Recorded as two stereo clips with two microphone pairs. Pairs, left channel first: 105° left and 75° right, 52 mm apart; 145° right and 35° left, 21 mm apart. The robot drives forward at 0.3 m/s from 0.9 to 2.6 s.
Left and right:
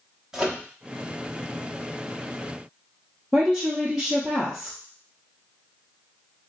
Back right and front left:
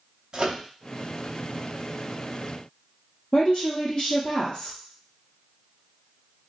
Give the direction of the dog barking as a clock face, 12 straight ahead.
No dog barking in this recording.